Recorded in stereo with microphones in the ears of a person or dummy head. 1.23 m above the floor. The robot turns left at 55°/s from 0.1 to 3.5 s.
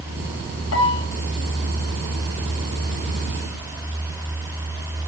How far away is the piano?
About 2.5 m.